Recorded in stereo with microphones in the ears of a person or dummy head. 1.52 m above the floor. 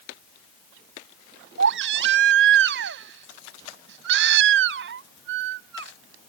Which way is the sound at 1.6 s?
75° right (ahead or behind).